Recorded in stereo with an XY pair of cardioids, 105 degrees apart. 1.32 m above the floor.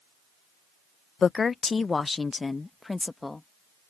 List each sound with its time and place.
1.2 s a woman speaking: 40° left; by 3.5 s 15° left